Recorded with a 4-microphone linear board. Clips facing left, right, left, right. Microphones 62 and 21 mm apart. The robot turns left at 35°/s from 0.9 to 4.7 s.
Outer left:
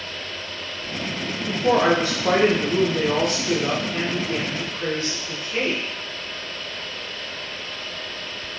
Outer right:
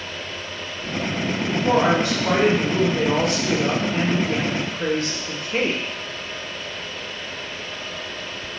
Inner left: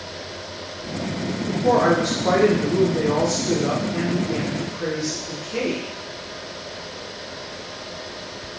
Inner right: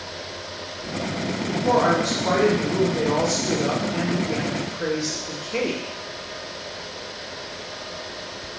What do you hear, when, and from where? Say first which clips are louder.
1.5 s a woman speaking: outer left 1 dB, inner left 2 dB; 60° left, 0.9 m; by 5.8 s 55° right, 0.9 m